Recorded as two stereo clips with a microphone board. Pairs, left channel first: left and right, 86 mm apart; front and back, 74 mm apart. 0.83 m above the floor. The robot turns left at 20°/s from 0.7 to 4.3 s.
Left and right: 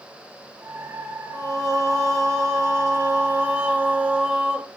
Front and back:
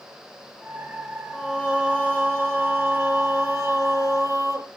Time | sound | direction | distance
1.3 | singing | 105° right | 0.9 m